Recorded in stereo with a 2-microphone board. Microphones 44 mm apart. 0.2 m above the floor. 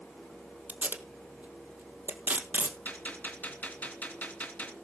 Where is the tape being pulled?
40° right (ahead or behind), 1.9 m.